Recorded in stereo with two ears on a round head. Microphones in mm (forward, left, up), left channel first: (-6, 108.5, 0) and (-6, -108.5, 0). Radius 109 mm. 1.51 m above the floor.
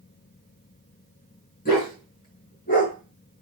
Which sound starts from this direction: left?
A dog barking, at 1.6 s.